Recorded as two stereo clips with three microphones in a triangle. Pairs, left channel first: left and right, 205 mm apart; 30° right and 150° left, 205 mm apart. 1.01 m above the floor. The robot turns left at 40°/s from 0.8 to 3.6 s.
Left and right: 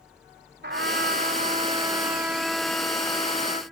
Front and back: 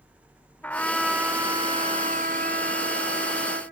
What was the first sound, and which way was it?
A trumpet, 110° right.